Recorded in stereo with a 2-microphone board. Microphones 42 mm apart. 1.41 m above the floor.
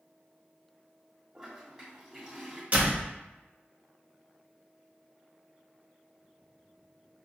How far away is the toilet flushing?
About 1.5 m.